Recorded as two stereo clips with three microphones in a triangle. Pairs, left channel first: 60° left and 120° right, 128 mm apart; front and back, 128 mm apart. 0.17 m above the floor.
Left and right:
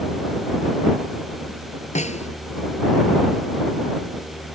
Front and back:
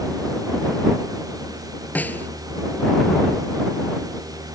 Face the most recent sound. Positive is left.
turn(degrees=75)